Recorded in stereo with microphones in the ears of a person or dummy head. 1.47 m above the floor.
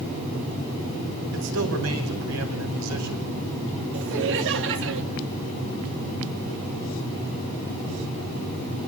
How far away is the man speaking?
About 5.5 m.